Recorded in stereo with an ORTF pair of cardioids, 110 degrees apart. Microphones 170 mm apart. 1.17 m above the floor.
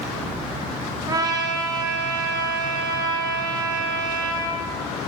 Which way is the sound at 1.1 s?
20° right.